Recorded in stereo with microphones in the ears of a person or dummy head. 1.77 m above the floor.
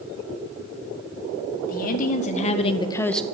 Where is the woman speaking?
45° left (ahead or behind), 2 m; by 3.2 s 5° right (ahead or behind), 0.7 m.